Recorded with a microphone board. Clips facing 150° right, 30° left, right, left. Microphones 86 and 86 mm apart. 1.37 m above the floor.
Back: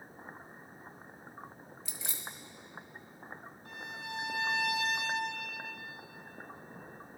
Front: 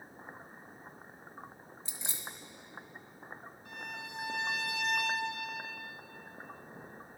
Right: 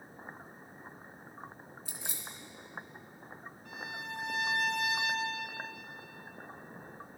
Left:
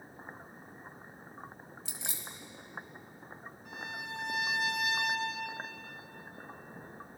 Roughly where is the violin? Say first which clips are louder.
Back 1 dB, even; behind.